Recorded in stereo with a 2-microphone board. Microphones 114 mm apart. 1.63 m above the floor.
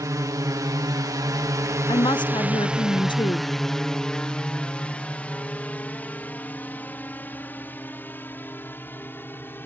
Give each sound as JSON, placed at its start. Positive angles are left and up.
{"t": 0.0, "sound": "a drone", "side_deg": -30}
{"t": 1.9, "sound": "a woman speaking", "side_deg": 40}